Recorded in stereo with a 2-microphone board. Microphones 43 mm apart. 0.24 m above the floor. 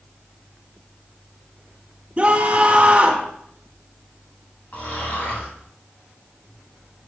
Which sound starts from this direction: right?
A scream, at 2.2 s.